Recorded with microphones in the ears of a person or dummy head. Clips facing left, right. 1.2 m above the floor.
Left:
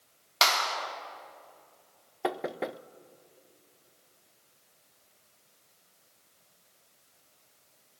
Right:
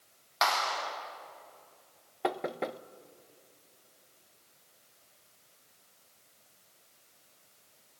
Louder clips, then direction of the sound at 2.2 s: Left 1 dB; 10° left (ahead or behind).